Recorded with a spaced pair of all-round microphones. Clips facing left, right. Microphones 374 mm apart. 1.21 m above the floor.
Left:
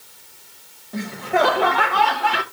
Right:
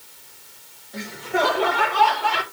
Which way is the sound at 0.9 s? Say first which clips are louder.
Left 4 dB; 65° left (ahead or behind).